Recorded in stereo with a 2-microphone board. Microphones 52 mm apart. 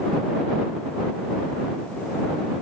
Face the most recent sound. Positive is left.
No sound to turn to.